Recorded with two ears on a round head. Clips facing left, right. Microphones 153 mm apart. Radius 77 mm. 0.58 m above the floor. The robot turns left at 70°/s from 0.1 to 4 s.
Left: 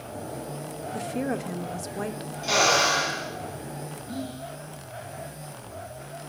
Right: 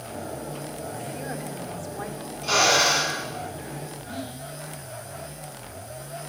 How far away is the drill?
About 7 m.